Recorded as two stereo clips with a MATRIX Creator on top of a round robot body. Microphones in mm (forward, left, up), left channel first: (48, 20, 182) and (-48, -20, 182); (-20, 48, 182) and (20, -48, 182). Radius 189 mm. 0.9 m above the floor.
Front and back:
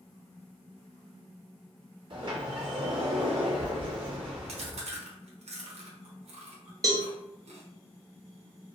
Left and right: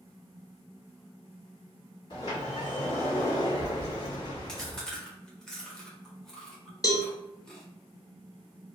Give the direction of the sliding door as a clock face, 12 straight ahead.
7 o'clock.